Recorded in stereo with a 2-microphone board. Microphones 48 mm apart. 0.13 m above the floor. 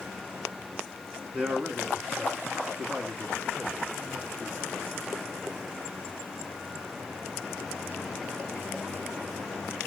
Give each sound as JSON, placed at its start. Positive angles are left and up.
{"t": 1.3, "sound": "a man speaking", "side_deg": -20, "distance_m": 1.2}